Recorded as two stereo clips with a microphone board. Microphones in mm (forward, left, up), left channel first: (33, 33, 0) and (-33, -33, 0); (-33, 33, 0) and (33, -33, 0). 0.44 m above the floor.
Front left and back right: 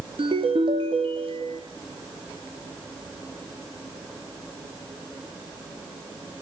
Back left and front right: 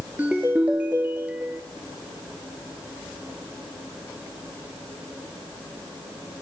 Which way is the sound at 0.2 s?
120° right.